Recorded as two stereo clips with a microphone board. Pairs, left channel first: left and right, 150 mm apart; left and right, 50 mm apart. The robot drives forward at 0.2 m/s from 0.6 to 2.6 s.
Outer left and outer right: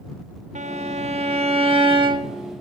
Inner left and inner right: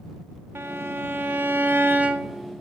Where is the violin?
55° right (ahead or behind), 0.5 m; by 2.5 s 35° right (ahead or behind), 0.8 m.